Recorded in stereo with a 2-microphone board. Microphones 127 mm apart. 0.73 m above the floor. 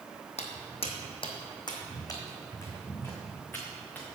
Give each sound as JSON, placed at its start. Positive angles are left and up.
{"t": 0.4, "sound": "footsteps", "side_deg": 55, "distance_m": 1.4}